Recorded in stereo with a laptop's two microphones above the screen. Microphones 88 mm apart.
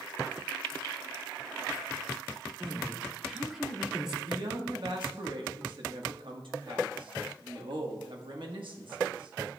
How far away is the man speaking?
About 1.2 m.